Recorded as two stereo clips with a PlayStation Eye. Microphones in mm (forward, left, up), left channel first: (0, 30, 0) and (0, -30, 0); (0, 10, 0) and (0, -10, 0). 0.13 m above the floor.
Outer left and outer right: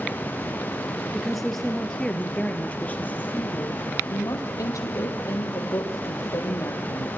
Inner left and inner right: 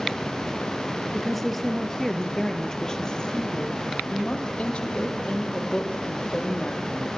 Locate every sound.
1.1 s a woman speaking: 5° right (ahead or behind), 3 m; by 3.8 s 35° left (ahead or behind), 4 m
4.1 s a woman speaking: 70° left (ahead or behind), 5 m